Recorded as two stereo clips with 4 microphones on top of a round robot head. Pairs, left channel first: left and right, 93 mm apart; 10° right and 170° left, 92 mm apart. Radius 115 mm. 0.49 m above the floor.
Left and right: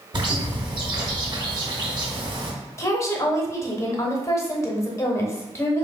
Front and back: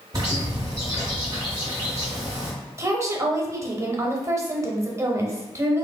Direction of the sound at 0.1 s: 135° right.